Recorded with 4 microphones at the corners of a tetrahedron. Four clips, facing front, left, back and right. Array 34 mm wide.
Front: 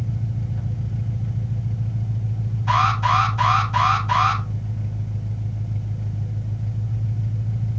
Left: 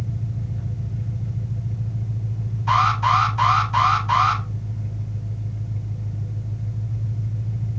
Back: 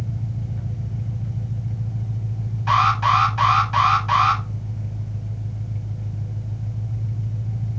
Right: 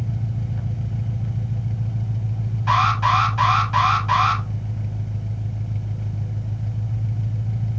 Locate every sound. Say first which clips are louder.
0.0 s an engine running: right 2 dB, front 1 dB; 90° right, 1.3 m
2.7 s an alarm: even, back 2 dB; 140° right, 6 m